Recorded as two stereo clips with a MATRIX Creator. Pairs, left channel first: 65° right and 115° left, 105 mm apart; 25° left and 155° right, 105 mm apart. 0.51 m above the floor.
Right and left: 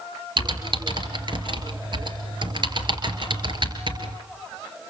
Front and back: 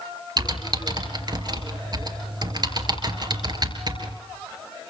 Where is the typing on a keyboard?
155° left, 3.5 m.